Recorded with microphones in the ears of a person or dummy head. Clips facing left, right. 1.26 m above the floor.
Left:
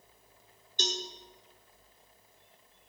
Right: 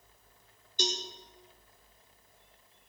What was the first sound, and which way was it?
A cowbell, 5° right (ahead or behind).